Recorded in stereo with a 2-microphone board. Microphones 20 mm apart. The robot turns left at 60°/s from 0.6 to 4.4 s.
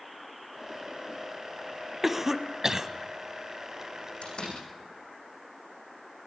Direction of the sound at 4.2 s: 70° left (ahead or behind).